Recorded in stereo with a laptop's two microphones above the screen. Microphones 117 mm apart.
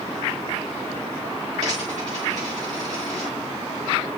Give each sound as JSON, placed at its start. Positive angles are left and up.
{"t": 1.6, "sound": "a dropped coin", "side_deg": -80, "distance_m": 9.0}